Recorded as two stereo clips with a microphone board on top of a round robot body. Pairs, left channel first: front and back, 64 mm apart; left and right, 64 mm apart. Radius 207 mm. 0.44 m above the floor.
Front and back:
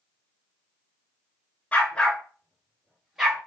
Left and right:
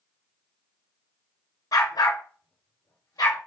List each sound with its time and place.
1.7 s a dog barking: 70° left, 2.5 m; by 3.4 s 100° left, 4.5 m